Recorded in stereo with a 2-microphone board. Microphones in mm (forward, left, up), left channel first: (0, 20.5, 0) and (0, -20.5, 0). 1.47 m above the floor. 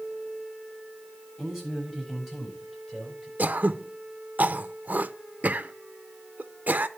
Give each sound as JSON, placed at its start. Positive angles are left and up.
{"t": 1.4, "sound": "a man speaking", "side_deg": 10, "distance_m": 7.5}
{"t": 3.4, "sound": "throat clearing", "side_deg": -40, "distance_m": 0.6}